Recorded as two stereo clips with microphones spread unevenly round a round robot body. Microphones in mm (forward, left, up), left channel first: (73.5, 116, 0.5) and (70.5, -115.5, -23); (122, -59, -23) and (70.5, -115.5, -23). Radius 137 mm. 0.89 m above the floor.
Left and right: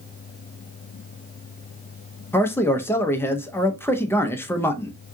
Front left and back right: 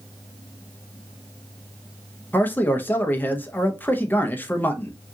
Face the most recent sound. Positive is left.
turn(degrees=5)